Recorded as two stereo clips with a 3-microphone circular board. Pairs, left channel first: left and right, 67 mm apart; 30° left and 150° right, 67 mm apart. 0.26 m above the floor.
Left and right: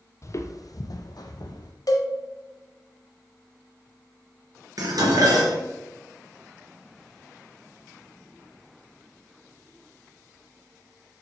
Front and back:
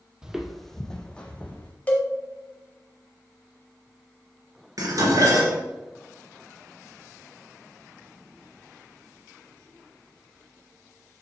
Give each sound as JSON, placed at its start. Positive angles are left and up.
{"t": 0.2, "sound": "footsteps", "azimuth_deg": 135, "distance_m": 0.6}
{"t": 1.9, "sound": "a cowbell", "azimuth_deg": 95, "distance_m": 1.6}
{"t": 4.8, "sound": "dishes clattering", "azimuth_deg": -120, "distance_m": 2.5}